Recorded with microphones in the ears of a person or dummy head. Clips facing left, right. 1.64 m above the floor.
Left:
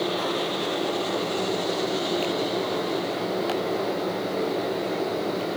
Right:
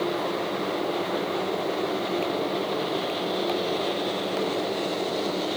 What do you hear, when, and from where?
Only background noise.